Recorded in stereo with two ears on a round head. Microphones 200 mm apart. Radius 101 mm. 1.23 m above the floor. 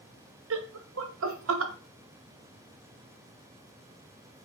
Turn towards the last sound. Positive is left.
turn(degrees=-60)  # may be behind; listen again after turning